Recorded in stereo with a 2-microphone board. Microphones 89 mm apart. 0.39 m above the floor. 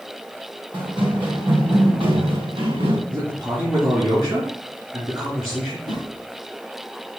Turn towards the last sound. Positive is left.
turn(degrees=-65)  # may be behind; listen again after turning